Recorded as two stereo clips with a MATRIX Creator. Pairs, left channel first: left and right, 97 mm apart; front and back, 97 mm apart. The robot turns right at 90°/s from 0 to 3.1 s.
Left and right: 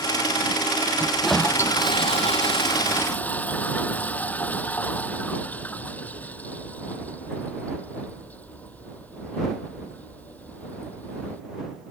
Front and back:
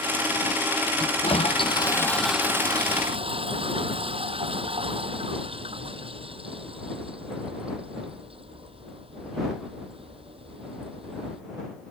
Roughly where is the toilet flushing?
Ahead right.